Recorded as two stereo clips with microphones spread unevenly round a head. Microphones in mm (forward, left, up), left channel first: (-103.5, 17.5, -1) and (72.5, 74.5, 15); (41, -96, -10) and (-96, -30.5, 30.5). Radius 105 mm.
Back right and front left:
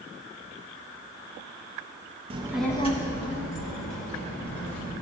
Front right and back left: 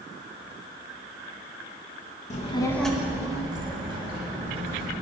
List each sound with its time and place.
2.3 s a child speaking: 10° left, 0.6 m; by 4.9 s 160° right, 2.5 m